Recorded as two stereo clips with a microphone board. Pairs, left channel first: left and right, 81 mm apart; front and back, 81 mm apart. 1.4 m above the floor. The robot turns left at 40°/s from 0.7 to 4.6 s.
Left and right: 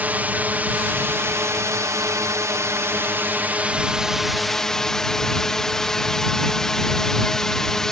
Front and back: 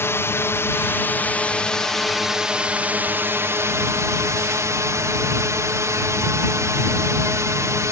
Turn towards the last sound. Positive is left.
turn(degrees=170)